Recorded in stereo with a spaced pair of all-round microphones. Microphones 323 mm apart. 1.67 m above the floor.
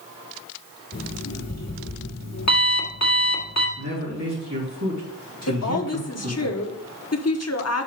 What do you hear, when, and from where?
0.9 s an alarm clock: 55° left (ahead or behind), 1.6 m
3.8 s a man speaking: 55° right (ahead or behind), 3.5 m
5.5 s a woman speaking: 50° left (ahead or behind), 1.0 m